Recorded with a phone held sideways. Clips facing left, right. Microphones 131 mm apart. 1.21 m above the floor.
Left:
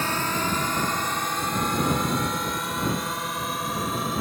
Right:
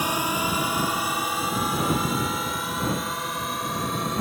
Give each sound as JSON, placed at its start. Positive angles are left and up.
{"t": 0.0, "sound": "a drone", "side_deg": -15}